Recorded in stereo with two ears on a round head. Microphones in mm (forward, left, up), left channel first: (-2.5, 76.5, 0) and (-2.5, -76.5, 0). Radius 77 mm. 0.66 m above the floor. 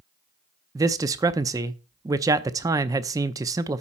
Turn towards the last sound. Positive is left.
turn(degrees=-20)  # may be behind; listen again after turning